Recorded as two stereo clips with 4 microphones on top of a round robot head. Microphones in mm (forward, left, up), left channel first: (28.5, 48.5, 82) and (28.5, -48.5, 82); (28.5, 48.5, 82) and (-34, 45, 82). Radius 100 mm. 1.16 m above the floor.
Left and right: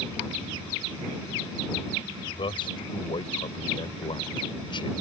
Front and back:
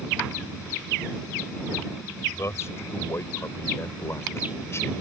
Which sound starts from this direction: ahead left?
A man speaking, at 2.4 s.